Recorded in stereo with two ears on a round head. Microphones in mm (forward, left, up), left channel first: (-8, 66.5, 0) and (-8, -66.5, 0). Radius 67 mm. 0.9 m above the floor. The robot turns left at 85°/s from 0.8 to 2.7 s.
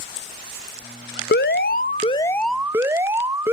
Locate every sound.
1.3 s an alarm: 100° left, 0.6 m; by 3.5 s 15° right, 0.6 m